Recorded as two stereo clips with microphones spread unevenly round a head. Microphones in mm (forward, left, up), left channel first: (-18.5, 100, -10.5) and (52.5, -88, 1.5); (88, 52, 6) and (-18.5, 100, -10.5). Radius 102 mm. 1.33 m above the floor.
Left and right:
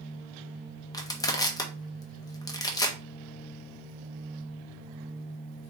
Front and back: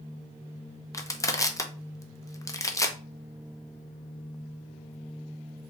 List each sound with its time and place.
0.9 s crushing: 35° left, 0.8 m